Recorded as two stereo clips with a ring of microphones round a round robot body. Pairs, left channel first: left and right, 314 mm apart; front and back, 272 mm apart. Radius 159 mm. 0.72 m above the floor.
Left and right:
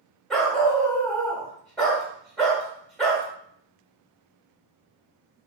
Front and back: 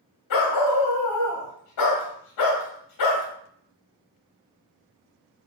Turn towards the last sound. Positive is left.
turn(degrees=0)